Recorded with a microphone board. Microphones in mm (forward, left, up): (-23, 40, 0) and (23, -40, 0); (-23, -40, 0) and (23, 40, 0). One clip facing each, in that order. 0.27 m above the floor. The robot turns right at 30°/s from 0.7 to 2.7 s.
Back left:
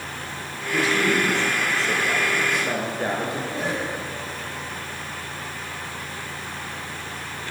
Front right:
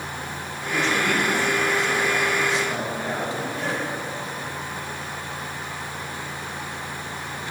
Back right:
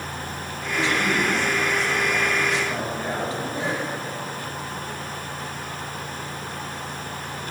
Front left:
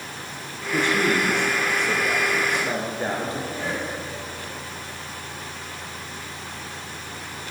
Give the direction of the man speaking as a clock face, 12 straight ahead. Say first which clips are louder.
Back left 1 dB, front left 2 dB; 11 o'clock.